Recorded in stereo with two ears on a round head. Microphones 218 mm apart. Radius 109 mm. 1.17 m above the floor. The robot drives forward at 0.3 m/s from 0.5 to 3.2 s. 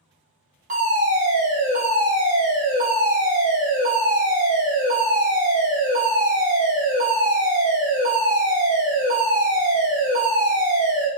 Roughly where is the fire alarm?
Right.